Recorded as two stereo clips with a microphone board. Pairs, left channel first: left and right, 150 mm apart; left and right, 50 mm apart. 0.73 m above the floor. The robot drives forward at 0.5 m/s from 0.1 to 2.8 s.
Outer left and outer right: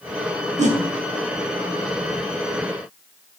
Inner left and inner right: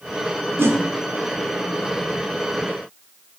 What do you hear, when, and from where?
0.6 s a whoosh: 55° right (ahead or behind), 0.5 m; by 0.8 s 50° right (ahead or behind), 0.6 m